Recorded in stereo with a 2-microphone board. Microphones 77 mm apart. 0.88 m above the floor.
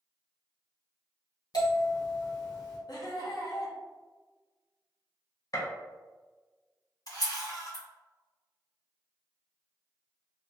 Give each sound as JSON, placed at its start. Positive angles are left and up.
{"t": 1.5, "sound": "a bell", "side_deg": 65, "distance_m": 1.3}
{"t": 2.9, "sound": "laughter", "side_deg": 60, "distance_m": 0.8}
{"t": 5.5, "sound": "a gunshot", "side_deg": 50, "distance_m": 0.6}
{"t": 7.1, "sound": "a camera shutter", "side_deg": 55, "distance_m": 1.5}